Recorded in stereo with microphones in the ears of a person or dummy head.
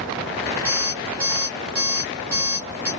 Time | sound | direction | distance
0.7 | an alarm clock | 10° right (ahead or behind) | 0.8 m